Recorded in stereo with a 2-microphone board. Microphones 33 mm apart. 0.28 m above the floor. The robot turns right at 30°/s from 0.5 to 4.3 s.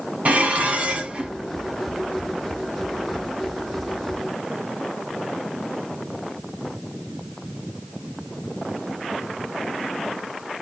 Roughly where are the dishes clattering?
Right.